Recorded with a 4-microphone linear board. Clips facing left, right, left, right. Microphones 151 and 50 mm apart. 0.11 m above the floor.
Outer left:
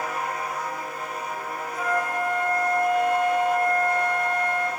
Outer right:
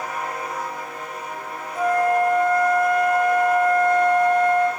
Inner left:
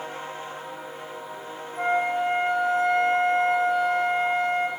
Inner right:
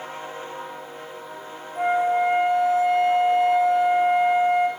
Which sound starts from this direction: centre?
A flute, at 1.8 s.